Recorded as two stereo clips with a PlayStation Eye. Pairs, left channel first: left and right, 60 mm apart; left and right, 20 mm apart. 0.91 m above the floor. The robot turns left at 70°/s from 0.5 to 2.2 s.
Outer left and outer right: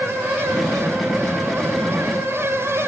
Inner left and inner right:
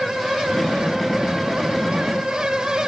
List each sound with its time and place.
Only background noise.